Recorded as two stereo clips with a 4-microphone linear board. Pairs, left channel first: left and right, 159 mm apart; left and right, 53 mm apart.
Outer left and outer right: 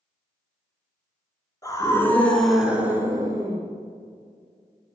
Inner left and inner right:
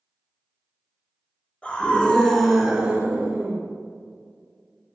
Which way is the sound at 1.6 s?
20° left (ahead or behind).